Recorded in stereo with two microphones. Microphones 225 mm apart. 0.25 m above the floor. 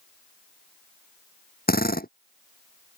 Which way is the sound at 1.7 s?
40° left (ahead or behind).